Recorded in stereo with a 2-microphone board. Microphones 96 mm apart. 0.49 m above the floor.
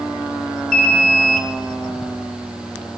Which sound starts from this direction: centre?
An alarm, at 0.7 s.